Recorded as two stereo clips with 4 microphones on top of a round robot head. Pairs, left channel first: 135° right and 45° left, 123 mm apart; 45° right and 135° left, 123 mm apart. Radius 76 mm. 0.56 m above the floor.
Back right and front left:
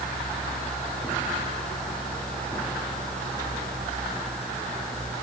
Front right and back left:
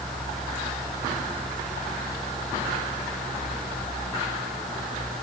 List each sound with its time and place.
Only background noise.